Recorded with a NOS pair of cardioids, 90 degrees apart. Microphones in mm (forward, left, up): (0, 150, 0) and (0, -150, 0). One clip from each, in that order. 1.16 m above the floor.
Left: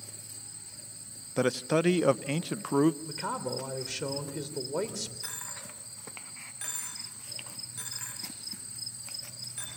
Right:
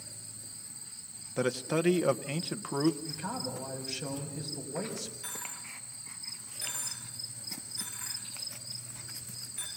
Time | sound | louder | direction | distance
1.4 | a man speaking | left 3 dB | 20° left | 0.8 m
3.0 | a man speaking | left 3 dB | 60° left | 3.5 m
5.2 | a dropped coin | left 1 dB | 40° left | 7.5 m